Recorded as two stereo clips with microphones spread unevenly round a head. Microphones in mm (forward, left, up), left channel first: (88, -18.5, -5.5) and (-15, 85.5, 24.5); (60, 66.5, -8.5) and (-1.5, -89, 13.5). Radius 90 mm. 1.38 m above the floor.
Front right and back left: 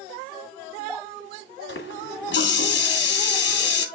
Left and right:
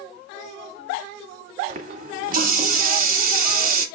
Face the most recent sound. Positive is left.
turn(degrees=-75)